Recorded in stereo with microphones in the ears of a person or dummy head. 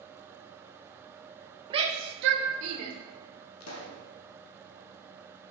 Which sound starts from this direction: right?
A shout, at 1.7 s.